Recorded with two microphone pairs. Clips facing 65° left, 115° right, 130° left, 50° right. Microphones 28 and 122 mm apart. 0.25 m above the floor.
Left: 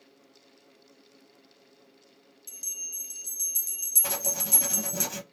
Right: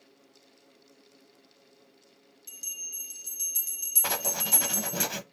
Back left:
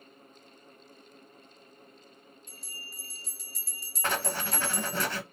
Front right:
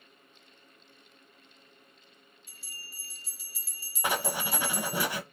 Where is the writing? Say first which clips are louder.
Right 4 dB, front right 1 dB; 125° right, 0.6 m.